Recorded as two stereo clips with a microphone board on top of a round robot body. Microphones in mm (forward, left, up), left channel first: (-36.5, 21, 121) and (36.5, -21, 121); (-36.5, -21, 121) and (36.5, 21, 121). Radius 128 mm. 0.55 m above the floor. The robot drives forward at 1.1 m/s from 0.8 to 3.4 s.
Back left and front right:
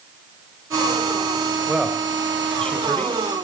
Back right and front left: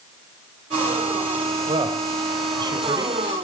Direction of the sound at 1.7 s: 50° left.